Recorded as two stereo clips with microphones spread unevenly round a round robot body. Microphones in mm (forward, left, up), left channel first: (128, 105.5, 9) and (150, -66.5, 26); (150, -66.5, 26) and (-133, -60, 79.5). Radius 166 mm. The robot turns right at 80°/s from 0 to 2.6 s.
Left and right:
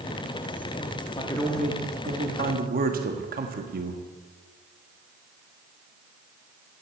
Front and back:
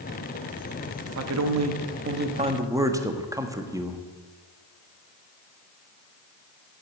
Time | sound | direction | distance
1.1 | a man speaking | 140° left | 1.6 m